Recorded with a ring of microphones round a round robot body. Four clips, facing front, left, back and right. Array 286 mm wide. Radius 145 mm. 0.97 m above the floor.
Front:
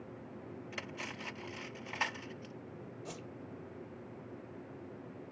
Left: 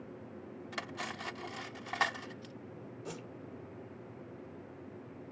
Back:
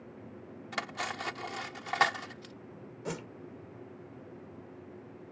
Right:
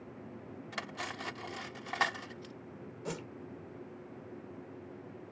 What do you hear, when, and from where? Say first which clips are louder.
0.7 s cutlery clinking: even, back 11 dB; straight behind
3.0 s a whoosh: right 5 dB, back 11 dB; 155° right